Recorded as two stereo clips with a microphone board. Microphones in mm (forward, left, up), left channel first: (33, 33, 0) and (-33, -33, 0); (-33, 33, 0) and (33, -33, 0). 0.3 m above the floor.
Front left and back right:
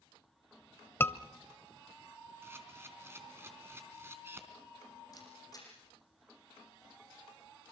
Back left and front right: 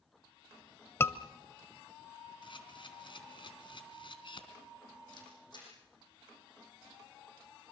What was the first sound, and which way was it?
A scream, 90° left.